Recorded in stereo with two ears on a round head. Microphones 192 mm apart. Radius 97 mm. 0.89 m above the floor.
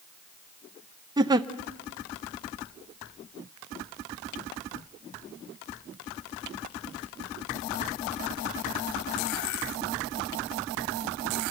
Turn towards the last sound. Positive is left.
turn(degrees=-20)  # may be behind; listen again after turning